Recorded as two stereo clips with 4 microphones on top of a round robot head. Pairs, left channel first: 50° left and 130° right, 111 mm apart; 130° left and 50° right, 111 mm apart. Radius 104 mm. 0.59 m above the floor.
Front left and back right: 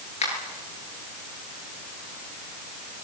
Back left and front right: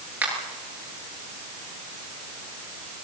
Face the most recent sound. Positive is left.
turn(degrees=30)